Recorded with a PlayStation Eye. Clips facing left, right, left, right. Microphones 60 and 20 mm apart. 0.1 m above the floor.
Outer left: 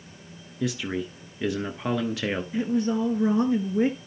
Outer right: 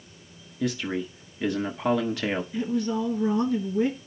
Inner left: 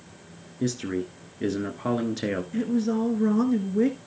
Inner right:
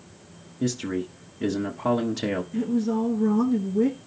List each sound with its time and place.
0.6 s a man speaking: centre (ahead or behind), 1.2 m
2.5 s a woman speaking: 25° left (ahead or behind), 1.3 m